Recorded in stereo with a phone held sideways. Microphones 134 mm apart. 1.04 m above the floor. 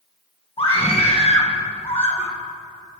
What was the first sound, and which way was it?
A scream, 45° left (ahead or behind).